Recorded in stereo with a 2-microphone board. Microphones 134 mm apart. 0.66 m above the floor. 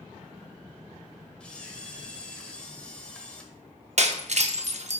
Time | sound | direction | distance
1.4 | a camera shutter | 10° left (ahead or behind) | 1.0 m
4.0 | breaking glass | 60° right (ahead or behind) | 0.5 m